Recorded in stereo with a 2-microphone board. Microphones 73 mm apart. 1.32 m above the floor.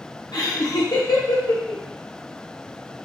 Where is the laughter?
65° left (ahead or behind), 0.8 m.